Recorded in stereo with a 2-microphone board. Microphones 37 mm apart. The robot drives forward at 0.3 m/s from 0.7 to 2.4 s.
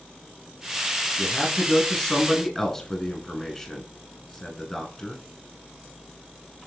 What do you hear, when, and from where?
1.2 s a man speaking: 10° left (ahead or behind), 1.2 m; by 5.2 s 15° left (ahead or behind), 1.1 m